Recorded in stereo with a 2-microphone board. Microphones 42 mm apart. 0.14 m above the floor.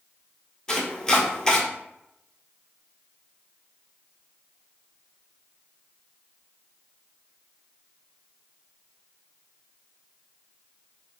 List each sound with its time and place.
0.7 s chopping: 15° left (ahead or behind), 0.9 m